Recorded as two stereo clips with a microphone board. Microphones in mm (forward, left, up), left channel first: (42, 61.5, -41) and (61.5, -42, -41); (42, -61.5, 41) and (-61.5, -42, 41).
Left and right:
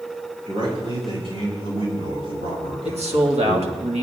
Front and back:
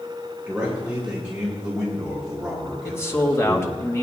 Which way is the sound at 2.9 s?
75° right.